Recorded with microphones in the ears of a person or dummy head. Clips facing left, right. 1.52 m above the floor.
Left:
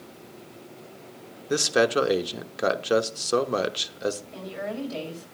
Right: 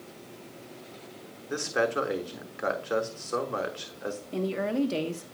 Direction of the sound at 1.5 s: 45° left (ahead or behind).